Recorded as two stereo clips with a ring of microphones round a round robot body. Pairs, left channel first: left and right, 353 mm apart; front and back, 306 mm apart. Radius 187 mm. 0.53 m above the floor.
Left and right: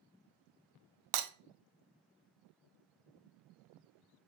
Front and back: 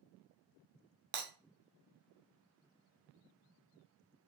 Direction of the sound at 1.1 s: 120° right.